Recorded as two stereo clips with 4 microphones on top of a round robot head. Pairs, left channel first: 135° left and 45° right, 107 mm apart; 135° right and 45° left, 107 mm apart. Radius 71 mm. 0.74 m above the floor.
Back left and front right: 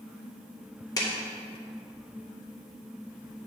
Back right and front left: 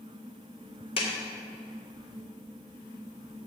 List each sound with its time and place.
1.0 s a clap: 170° right, 2 m